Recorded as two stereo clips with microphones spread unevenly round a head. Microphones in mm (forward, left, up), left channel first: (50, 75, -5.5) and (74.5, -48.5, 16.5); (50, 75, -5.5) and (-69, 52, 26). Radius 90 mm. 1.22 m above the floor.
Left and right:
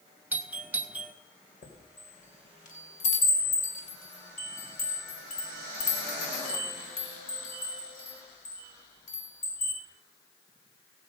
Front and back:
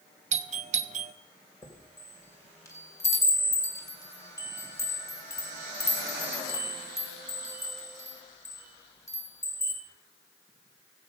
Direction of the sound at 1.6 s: 80° left.